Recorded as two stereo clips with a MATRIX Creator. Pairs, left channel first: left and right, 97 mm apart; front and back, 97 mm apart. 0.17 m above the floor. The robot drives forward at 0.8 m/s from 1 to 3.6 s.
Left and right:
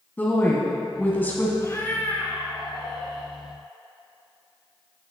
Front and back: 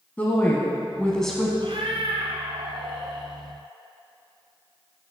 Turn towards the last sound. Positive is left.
turn(degrees=170)